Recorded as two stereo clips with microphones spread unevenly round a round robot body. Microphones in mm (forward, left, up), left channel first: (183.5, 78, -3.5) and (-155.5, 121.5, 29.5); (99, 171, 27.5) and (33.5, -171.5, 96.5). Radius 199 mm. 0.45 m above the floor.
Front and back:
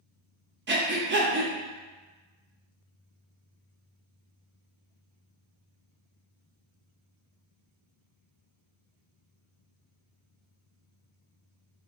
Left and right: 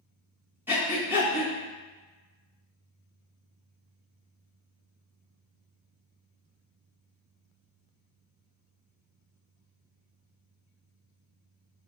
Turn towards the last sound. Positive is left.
turn(degrees=160)